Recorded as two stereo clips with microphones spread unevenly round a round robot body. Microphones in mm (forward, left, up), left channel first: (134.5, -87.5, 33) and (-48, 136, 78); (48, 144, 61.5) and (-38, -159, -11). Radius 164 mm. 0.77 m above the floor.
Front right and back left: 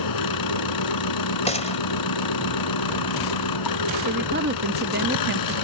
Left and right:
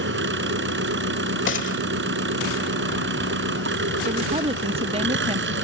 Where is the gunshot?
20° left.